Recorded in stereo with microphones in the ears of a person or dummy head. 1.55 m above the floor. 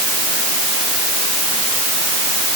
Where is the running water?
No running water in this recording.